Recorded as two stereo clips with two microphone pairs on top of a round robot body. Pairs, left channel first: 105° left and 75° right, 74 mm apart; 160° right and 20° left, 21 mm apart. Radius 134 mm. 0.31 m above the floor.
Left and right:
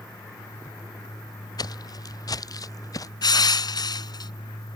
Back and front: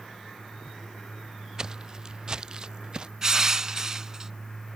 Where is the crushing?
85° left.